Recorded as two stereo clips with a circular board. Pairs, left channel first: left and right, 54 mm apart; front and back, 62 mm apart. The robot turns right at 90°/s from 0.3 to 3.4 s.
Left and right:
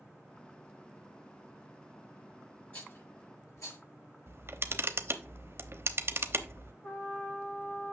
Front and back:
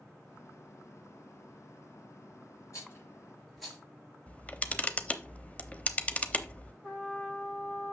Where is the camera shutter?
65° right, 0.8 m.